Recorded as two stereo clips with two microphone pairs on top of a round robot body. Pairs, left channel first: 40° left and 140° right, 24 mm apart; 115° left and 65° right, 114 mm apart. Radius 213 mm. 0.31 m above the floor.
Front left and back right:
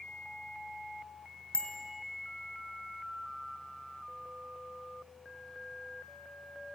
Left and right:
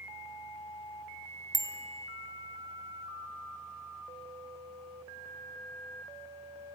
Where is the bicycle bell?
Straight ahead, 2.5 m.